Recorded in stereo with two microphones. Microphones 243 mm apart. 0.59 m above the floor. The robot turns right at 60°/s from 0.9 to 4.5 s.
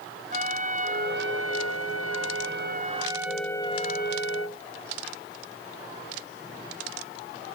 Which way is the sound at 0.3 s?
145° right.